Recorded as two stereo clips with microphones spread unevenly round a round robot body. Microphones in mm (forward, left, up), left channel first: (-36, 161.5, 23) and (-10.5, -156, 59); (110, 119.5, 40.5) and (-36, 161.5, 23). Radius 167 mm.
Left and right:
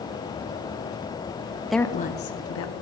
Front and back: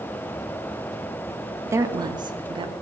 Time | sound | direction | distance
1.6 | a woman speaking | 175° right | 0.8 m